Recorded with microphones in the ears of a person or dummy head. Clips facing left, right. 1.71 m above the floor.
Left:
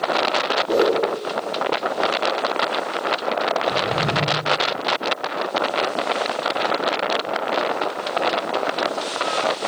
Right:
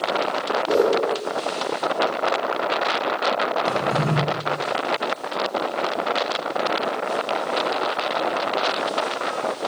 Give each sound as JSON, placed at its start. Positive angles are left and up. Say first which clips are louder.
{"t": 0.7, "sound": "a whoosh", "louder": "even", "side_deg": -50, "distance_m": 4.5}
{"t": 3.6, "sound": "a drawer", "louder": "even", "side_deg": -60, "distance_m": 4.0}